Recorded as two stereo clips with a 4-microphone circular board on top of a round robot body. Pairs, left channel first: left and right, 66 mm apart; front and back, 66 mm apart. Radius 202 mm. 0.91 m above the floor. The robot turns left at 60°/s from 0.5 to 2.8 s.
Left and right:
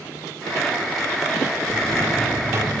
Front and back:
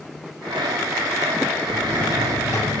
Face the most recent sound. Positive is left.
turn(degrees=-60)